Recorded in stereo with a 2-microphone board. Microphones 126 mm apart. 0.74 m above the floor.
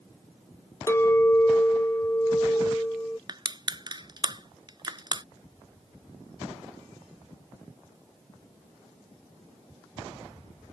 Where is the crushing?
40° right (ahead or behind).